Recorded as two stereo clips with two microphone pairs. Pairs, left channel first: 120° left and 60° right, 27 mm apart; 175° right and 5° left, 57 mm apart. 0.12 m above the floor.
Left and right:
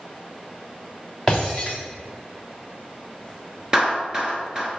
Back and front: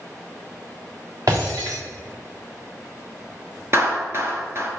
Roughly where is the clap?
Ahead.